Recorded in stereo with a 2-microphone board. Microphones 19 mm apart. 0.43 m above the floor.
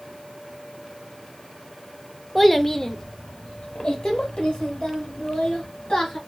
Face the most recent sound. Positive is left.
turn(degrees=65)  # may be behind; listen again after turning